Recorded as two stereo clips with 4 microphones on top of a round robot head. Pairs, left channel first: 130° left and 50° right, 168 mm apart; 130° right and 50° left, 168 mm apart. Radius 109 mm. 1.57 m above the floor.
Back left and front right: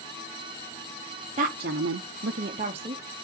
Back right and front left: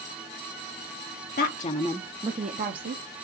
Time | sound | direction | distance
1.4 | a woman speaking | 100° right | 0.8 m